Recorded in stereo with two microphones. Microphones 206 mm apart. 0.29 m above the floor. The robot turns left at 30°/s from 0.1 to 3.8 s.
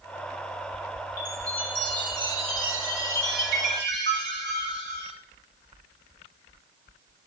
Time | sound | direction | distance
1.2 | a chime | 40° right | 1.3 m